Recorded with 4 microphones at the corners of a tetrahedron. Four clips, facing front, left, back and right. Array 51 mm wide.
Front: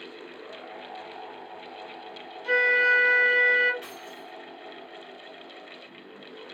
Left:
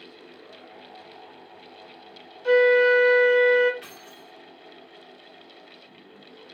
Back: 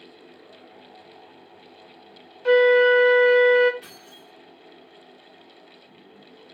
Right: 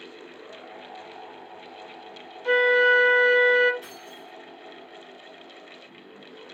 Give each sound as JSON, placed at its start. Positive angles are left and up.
{"t": 2.5, "sound": "a flute", "azimuth_deg": -170, "distance_m": 1.8}
{"t": 3.8, "sound": "keys jangling", "azimuth_deg": 55, "distance_m": 2.0}